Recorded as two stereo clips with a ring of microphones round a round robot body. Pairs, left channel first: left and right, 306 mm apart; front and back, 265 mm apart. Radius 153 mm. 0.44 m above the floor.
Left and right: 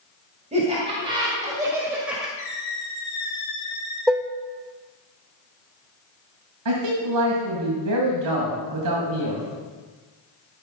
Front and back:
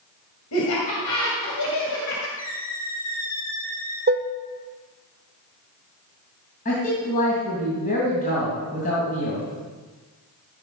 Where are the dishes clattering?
175° right, 0.5 m.